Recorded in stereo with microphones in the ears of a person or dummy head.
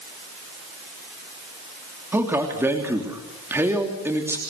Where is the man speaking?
10° right (ahead or behind), 3 m.